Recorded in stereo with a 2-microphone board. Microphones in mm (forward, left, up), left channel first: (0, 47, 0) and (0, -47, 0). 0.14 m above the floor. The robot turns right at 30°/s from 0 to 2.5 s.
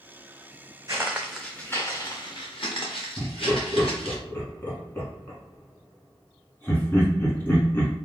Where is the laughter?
20° left (ahead or behind), 1.1 m.